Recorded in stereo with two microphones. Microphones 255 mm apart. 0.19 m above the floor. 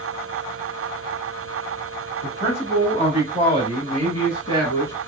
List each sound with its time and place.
2.2 s a man speaking: 25° left (ahead or behind), 1.6 m; by 4.9 s 15° left (ahead or behind), 2 m